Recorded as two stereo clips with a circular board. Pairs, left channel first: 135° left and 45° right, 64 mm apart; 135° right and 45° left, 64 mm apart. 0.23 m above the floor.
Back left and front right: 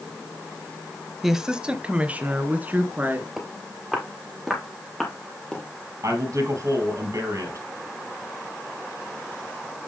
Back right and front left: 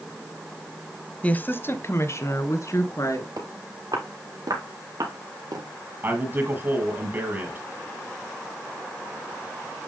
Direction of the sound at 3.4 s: 35° left.